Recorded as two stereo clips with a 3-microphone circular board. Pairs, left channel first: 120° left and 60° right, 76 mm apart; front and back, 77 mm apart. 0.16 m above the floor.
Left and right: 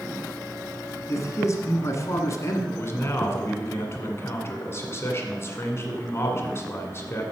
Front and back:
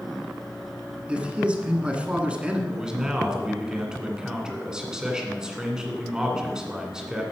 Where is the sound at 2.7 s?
105° left, 1.7 m.